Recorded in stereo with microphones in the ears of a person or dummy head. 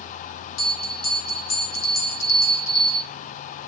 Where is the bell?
75° left (ahead or behind), 3 m.